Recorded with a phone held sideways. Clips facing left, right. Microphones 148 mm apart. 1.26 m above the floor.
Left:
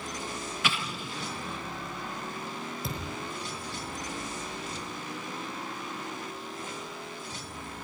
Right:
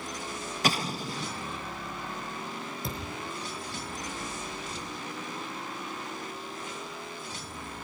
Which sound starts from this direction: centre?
A thud, at 2.8 s.